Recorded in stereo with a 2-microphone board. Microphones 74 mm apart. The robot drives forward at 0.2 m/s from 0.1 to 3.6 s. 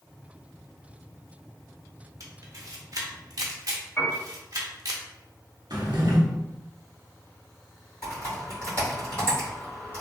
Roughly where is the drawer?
Right.